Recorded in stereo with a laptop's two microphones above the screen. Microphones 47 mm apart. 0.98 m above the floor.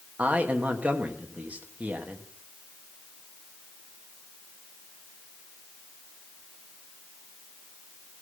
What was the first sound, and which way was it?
A man speaking, 30° right (ahead or behind).